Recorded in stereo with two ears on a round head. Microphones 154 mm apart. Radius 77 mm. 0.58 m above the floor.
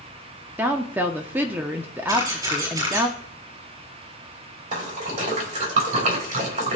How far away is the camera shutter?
About 6 m.